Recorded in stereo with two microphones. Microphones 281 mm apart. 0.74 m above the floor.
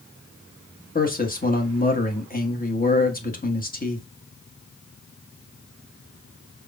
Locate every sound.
0.9 s a man speaking: 30° left (ahead or behind), 1.1 m